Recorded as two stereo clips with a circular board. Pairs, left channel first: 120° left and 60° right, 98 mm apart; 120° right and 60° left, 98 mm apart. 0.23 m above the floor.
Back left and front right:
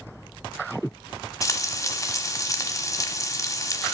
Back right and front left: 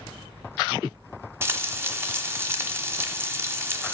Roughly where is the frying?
Left.